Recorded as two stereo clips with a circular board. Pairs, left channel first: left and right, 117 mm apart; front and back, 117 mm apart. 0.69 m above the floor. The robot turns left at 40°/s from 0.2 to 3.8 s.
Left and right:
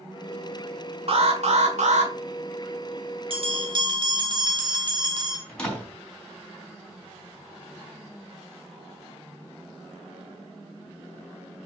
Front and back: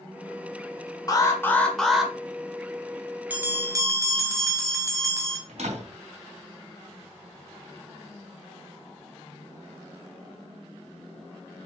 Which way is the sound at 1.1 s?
60° right.